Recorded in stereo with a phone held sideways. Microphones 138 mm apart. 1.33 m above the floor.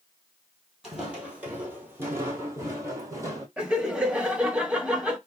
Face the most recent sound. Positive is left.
turn(degrees=-5)  # may be behind; listen again after turning